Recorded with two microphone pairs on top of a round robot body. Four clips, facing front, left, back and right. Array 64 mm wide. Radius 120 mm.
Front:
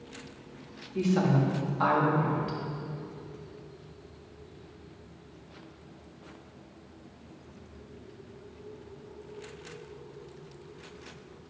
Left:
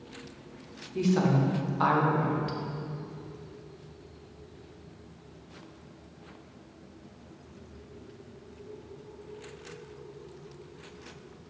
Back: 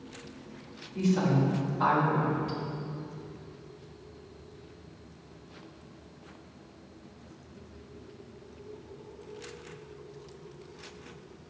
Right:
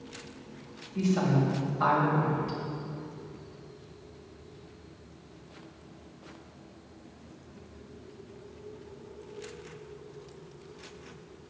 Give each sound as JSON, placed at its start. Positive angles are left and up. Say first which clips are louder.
{"t": 0.9, "sound": "a woman speaking", "louder": "left 1 dB, front 1 dB", "azimuth_deg": 50, "distance_m": 1.7}